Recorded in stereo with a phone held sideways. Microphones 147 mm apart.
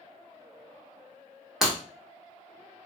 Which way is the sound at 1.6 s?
5° right (ahead or behind).